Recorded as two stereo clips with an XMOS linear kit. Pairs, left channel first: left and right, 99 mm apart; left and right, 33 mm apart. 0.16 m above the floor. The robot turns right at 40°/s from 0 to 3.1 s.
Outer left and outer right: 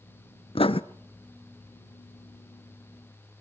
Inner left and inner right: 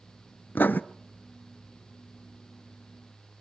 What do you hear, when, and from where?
0.6 s writing: 70° left (ahead or behind), 0.6 m